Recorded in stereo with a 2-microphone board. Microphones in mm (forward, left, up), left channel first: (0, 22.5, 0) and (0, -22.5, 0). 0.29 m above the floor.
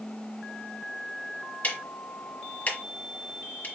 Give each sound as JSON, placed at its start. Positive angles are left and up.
{"t": 1.6, "sound": "ticking", "side_deg": 35, "distance_m": 1.3}